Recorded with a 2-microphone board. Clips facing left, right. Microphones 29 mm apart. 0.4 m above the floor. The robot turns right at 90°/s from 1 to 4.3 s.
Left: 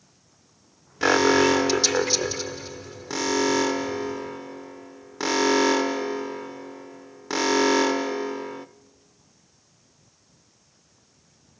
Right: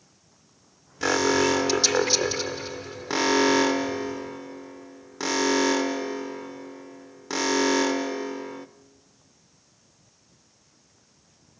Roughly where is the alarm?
Left.